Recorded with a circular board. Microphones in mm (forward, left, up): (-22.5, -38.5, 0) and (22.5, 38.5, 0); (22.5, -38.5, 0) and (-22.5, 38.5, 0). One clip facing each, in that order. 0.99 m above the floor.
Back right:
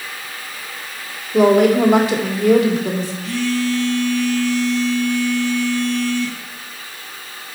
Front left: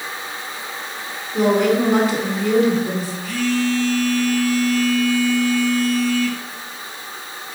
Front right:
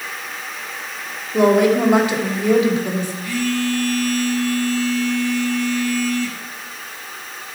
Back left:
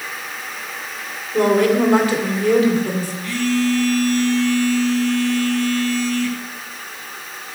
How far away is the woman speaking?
About 2 m.